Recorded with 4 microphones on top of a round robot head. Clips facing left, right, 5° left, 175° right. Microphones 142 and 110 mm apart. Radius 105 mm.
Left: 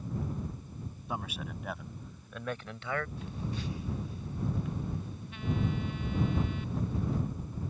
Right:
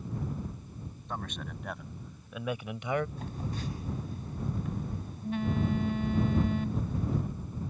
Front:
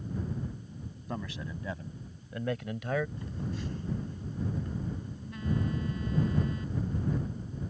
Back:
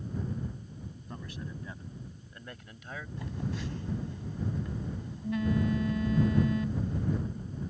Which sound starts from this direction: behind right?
A phone buzzing, at 3.2 s.